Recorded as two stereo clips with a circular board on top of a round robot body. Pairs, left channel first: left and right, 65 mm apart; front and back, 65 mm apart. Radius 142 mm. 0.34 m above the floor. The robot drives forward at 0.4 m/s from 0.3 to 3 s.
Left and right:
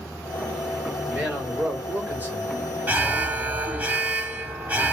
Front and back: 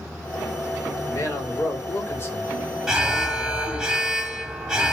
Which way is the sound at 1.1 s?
25° right.